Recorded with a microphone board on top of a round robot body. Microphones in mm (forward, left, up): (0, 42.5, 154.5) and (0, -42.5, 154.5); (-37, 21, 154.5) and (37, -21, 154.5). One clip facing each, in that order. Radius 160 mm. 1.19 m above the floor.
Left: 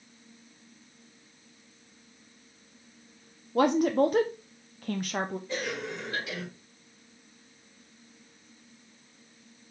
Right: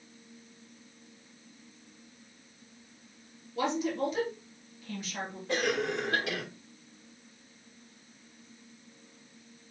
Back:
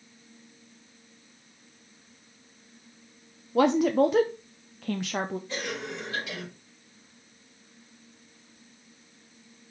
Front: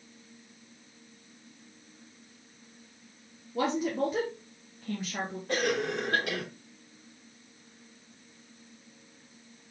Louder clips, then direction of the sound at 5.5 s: Right 4 dB, front 6 dB; 65° right.